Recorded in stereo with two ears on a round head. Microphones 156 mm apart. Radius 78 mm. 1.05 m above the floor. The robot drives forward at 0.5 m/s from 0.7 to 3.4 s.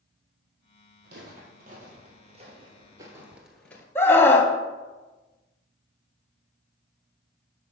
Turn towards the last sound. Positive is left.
turn(degrees=15)  # may be behind; listen again after turning